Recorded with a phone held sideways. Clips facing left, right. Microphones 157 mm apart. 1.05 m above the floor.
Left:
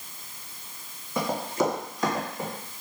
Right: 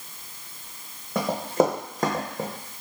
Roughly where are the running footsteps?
Right.